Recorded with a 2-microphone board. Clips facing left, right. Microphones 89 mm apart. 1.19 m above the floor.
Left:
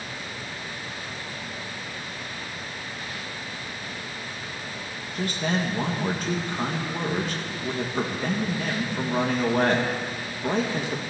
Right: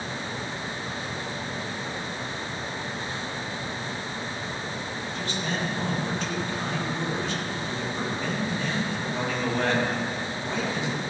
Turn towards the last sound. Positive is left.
turn(degrees=50)  # may be behind; listen again after turning